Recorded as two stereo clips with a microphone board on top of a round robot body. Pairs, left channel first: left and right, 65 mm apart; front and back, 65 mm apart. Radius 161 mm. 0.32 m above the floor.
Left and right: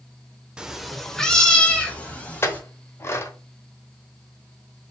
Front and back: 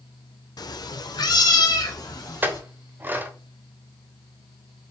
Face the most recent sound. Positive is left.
turn(degrees=125)